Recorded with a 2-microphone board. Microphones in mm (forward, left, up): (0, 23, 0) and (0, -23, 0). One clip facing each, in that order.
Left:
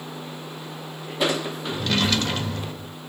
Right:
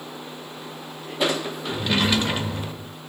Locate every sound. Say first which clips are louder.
1.7 s a drawer: right 1 dB; 15° right (ahead or behind), 0.6 m